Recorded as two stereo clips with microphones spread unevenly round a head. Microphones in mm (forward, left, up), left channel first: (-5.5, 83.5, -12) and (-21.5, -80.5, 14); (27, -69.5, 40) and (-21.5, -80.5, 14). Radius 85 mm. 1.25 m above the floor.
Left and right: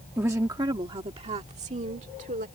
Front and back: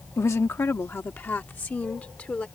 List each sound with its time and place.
0.2 s a woman speaking: 15° right; by 2.5 s 50° right